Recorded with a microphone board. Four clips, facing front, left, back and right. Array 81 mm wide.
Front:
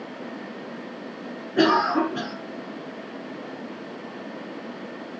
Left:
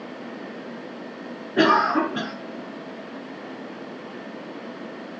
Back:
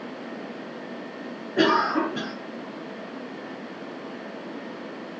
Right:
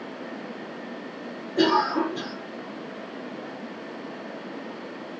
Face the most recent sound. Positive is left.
turn(degrees=95)